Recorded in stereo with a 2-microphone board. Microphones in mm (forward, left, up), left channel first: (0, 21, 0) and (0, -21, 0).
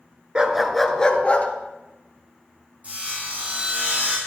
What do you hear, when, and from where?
0.3 s a dog barking: 20° right (ahead or behind), 1.0 m; by 1.5 s 35° left (ahead or behind), 1.4 m
2.8 s sawing: 35° right (ahead or behind), 6 m